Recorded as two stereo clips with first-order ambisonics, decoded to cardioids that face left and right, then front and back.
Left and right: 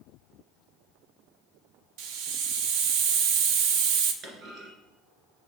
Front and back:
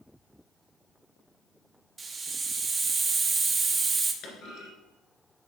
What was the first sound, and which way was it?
A hiss, 105° right.